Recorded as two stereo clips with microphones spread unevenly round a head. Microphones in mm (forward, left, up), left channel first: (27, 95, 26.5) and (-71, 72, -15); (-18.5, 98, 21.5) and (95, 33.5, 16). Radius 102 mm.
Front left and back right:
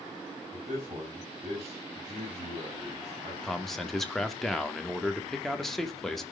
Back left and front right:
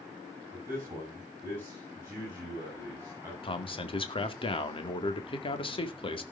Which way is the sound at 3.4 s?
100° left.